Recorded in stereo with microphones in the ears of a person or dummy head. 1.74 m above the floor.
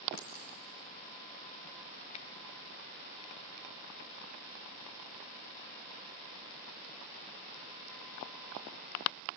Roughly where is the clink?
Left.